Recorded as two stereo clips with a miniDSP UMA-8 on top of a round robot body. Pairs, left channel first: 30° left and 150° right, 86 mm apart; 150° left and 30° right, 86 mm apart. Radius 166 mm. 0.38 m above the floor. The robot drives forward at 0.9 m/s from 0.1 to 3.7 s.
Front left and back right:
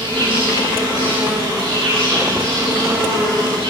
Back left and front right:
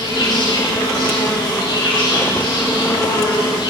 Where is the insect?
170° right, 7 m; by 3.7 s 175° right, 10 m.